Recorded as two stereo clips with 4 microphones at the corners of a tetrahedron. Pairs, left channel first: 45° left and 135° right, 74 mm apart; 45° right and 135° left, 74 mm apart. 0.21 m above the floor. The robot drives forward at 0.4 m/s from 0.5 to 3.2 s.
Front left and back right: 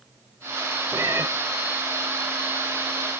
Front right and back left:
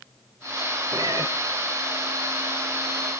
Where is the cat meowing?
170° left, 1.3 m.